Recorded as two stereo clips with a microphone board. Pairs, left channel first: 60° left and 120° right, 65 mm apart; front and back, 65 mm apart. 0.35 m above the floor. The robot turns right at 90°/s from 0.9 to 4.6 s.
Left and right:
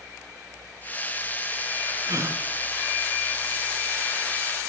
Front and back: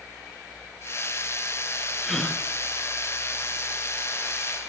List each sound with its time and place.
2.0 s a gasp: 95° right, 2.5 m; by 2.4 s 60° right, 2.5 m